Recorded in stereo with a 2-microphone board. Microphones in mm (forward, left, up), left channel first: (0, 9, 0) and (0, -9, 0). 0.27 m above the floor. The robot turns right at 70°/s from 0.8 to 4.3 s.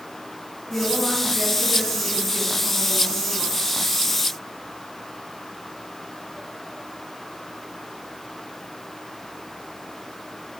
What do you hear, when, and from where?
0.7 s a woman speaking: 135° left, 2.5 m; by 3.5 s 35° right, 2.5 m